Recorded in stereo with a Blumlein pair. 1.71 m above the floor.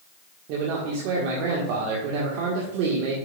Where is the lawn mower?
I don't hear a lawn mower.